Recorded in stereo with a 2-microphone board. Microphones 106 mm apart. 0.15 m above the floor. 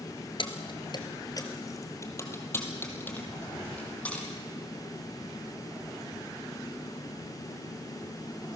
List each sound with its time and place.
0.4 s keys jangling: 50° left (ahead or behind), 1.7 m; by 4.3 s 15° left (ahead or behind), 4.5 m